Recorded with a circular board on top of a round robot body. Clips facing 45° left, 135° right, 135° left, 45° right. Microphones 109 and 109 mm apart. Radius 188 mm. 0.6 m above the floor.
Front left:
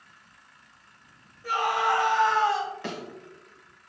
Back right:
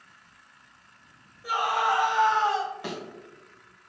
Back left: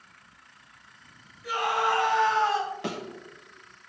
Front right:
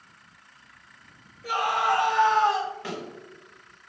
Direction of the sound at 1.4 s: 55° right.